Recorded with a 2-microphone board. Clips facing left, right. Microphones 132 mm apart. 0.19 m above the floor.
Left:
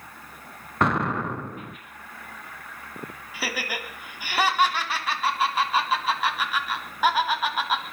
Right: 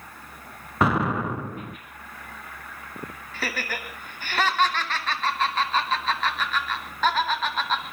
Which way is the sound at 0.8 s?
5° right (ahead or behind).